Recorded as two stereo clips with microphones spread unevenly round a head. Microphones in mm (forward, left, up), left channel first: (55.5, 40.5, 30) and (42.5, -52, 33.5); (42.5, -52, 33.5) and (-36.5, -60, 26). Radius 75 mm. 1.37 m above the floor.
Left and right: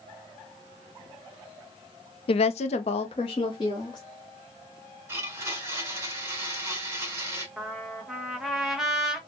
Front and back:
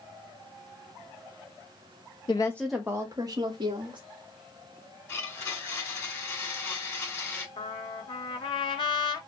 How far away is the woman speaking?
About 0.5 m.